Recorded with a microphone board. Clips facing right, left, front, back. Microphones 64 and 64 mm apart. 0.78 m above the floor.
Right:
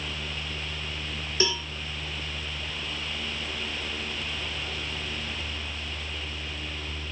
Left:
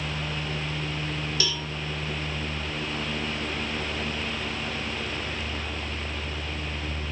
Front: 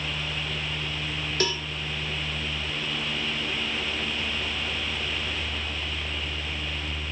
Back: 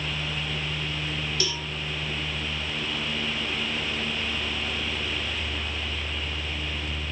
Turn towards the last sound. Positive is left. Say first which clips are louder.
# right 8 dB, front 3 dB
turn(degrees=-35)